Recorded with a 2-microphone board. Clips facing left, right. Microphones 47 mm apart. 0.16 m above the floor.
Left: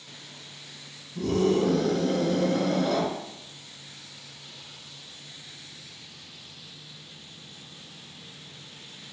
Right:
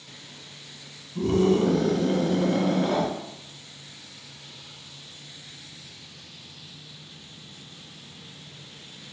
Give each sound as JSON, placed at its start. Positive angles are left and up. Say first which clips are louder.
{"t": 1.1, "sound": "a scream", "louder": "right 2 dB", "side_deg": -30, "distance_m": 1.5}